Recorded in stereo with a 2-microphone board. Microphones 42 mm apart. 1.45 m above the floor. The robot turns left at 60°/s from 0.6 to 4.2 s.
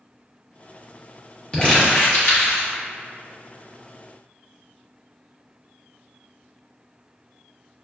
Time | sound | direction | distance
1.5 | crumpling | 25° left (ahead or behind) | 1.3 m